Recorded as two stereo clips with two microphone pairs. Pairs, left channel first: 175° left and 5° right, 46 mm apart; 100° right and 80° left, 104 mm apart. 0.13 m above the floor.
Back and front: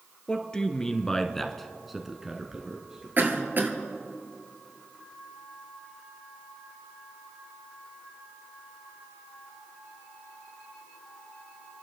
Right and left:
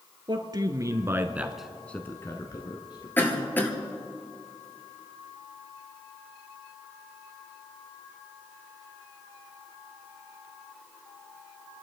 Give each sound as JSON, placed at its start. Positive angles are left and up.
{"t": 0.3, "sound": "a man speaking", "azimuth_deg": 110, "distance_m": 1.8}
{"t": 3.2, "sound": "a cough", "azimuth_deg": -35, "distance_m": 2.5}